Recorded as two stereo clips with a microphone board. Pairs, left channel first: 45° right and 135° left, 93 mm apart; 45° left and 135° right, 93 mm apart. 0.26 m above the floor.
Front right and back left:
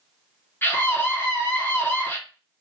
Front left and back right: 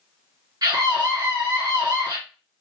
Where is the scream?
105° right, 2.5 m.